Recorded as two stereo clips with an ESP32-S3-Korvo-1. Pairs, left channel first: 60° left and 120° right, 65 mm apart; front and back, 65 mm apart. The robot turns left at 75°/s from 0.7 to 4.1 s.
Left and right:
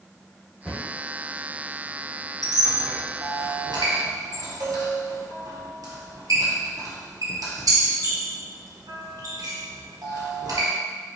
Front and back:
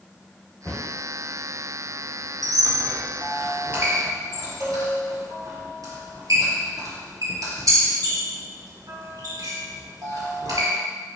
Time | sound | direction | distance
0.7 | a cupboard door | 15° right | 1.2 m
2.4 | a squeak | 25° right | 1.6 m